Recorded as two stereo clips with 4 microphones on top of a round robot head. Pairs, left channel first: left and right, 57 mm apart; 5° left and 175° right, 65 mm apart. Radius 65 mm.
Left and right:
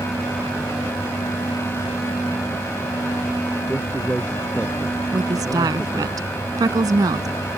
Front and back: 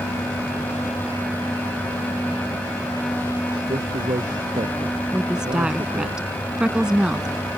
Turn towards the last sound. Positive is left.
turn(degrees=-95)